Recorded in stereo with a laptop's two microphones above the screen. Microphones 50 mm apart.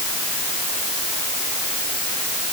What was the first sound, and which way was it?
Only background noise.